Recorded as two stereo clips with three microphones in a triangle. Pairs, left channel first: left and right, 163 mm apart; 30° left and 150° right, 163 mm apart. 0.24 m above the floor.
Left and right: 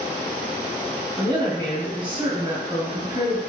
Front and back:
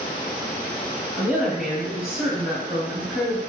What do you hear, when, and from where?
1.2 s a woman speaking: 65° right, 1.2 m